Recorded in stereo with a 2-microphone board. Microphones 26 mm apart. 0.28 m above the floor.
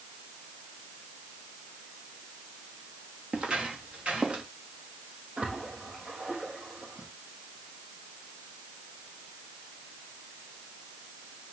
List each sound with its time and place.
3.3 s footsteps: 45° right (ahead or behind), 3 m; by 4.4 s 40° right (ahead or behind), 4 m
5.4 s a splash: 60° right (ahead or behind), 4 m